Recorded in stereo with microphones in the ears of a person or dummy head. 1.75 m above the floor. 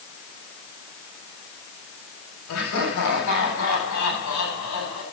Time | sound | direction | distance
2.5 | laughter | 80° left | 8.5 m